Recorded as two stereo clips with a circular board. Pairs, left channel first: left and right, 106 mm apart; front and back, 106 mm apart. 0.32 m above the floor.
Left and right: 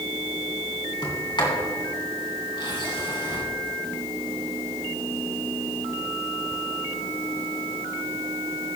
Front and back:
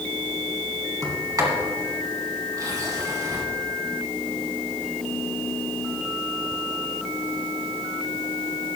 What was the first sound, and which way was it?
A sliding door, 125° left.